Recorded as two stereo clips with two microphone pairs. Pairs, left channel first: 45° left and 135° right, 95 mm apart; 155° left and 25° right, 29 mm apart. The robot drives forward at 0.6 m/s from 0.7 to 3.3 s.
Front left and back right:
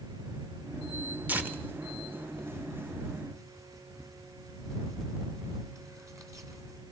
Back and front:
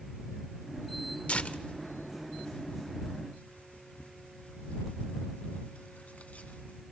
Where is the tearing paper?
155° left, 1.1 m; by 6.8 s 170° left, 2 m.